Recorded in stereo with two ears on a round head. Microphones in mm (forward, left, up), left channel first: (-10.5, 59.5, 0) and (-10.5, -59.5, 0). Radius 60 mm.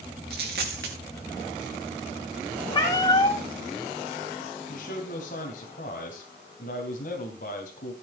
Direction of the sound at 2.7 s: 35° left (ahead or behind).